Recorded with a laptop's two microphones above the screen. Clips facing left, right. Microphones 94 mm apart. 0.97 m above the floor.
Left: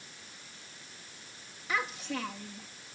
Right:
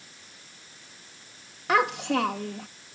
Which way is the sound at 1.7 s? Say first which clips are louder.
Right 11 dB; 75° right (ahead or behind).